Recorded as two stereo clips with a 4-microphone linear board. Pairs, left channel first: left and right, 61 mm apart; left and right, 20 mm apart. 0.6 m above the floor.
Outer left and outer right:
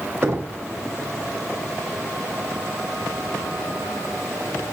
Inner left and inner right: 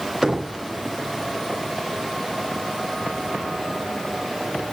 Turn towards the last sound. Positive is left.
turn(degrees=-55)  # may be behind; listen again after turning